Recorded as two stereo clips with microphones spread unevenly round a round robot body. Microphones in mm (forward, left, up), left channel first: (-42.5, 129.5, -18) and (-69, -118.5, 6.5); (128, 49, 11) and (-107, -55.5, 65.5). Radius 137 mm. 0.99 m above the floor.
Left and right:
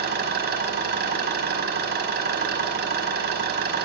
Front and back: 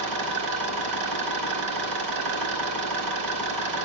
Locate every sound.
0.0 s an engine running: 145° right, 5 m